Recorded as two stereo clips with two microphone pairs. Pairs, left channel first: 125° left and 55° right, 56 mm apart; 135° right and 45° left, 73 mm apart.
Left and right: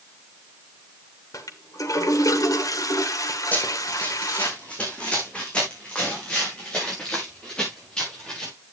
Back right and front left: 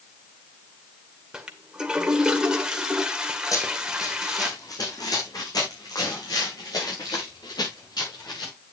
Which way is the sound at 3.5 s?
175° right.